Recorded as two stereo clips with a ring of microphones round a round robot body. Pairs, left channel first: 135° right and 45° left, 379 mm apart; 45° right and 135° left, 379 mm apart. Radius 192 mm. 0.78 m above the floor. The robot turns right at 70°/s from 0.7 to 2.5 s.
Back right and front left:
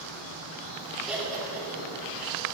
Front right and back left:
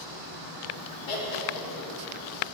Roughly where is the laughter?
Ahead right.